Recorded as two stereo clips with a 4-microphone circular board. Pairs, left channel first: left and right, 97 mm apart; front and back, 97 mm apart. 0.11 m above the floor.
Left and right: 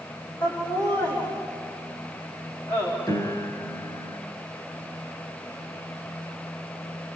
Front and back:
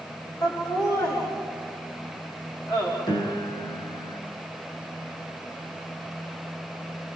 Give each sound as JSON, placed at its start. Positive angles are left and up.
{"t": 0.4, "sound": "laughter", "azimuth_deg": 50, "distance_m": 7.5}
{"t": 3.1, "sound": "a piano", "azimuth_deg": 40, "distance_m": 8.0}